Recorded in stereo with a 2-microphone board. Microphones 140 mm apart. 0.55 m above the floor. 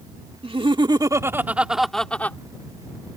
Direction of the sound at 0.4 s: 40° right (ahead or behind).